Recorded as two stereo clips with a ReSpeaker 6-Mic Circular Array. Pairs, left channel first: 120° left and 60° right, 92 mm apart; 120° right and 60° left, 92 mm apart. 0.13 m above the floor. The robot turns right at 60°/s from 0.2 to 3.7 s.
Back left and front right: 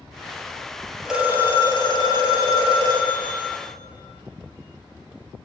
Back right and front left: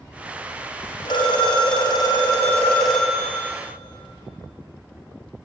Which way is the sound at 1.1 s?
145° right.